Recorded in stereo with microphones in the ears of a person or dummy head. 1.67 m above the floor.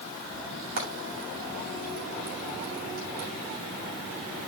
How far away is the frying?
About 7 m.